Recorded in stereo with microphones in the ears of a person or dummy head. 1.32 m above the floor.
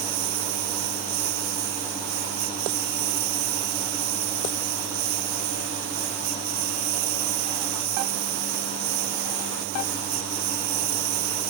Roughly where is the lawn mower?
Right.